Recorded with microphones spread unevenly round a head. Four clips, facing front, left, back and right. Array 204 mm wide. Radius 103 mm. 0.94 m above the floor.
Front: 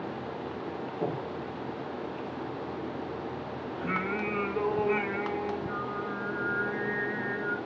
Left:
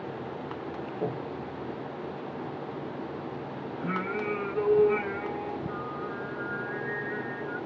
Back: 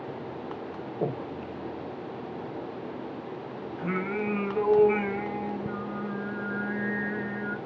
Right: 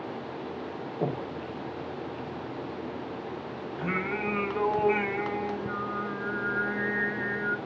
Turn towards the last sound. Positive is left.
turn(degrees=-105)